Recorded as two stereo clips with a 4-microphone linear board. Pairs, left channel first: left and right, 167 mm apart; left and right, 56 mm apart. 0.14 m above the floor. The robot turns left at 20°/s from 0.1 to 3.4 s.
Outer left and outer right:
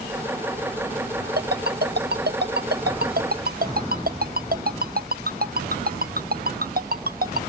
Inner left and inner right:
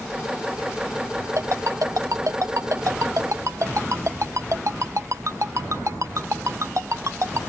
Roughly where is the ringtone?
Right.